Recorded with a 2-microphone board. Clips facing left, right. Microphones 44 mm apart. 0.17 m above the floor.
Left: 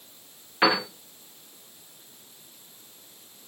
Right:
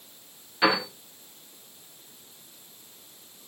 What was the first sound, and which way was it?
A piano, 30° left (ahead or behind).